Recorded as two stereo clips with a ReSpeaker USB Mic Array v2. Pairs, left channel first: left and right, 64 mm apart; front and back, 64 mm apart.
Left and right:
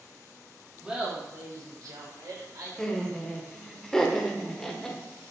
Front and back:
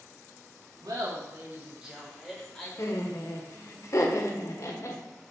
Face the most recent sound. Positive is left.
turn(degrees=15)